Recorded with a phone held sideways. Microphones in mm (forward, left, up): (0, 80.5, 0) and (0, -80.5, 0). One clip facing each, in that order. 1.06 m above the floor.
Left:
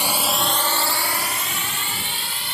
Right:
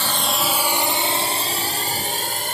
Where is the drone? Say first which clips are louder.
Even; 15° left (ahead or behind); by 2.5 s 50° right (ahead or behind).